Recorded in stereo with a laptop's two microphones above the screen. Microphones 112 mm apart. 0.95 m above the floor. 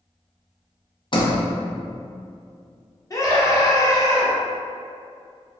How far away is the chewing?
No chewing in this recording.